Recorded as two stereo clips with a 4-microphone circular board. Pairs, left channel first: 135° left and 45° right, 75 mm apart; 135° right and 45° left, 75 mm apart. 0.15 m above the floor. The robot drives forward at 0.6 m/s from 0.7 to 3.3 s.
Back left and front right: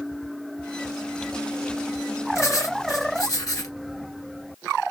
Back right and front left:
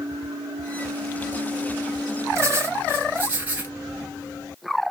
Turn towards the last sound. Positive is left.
turn(degrees=110)